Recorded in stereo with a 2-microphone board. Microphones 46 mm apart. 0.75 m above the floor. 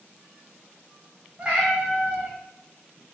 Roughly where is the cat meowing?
Centre.